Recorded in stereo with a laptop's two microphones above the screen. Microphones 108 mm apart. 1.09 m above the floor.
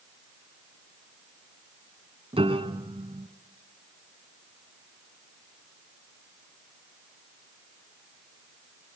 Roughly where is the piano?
Right.